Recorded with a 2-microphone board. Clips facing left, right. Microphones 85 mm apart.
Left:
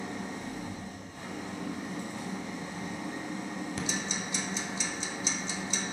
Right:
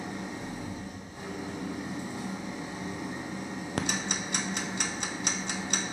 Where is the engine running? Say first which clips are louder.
Even; 15° right (ahead or behind), 2 m.